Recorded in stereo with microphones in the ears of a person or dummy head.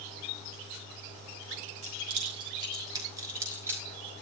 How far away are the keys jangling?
About 4.5 m.